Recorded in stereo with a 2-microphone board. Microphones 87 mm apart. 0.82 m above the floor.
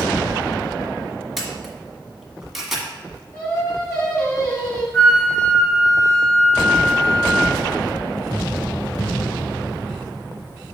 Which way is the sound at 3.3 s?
40° left (ahead or behind).